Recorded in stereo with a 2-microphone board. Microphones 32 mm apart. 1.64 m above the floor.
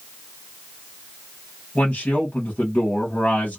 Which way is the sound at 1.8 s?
55° left (ahead or behind).